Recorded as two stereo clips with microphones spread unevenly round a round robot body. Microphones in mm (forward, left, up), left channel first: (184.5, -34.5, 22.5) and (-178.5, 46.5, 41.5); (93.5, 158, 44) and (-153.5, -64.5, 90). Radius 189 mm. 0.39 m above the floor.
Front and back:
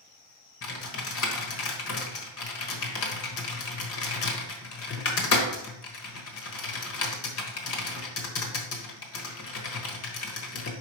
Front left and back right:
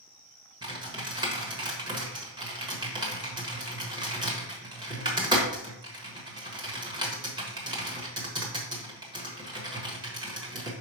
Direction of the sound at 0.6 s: 60° right.